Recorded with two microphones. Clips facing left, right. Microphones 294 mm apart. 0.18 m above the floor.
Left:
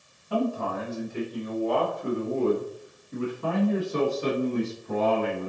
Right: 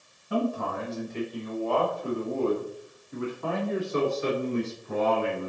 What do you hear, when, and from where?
0.3 s a man speaking: centre (ahead or behind), 2 m; by 5.5 s 50° left (ahead or behind), 2.5 m